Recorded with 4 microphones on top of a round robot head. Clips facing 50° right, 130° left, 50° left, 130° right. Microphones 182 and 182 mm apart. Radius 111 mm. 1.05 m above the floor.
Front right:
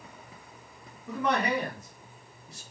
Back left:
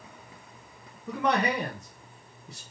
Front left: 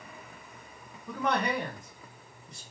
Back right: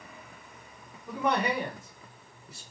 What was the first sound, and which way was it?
A man speaking, 150° left.